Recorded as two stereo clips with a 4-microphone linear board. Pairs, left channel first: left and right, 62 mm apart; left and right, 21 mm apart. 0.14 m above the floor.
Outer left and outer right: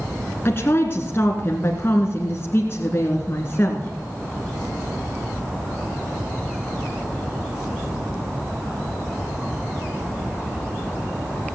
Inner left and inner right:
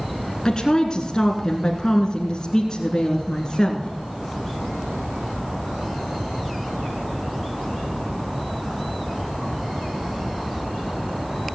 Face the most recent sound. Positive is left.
turn(degrees=40)  # may be behind; listen again after turning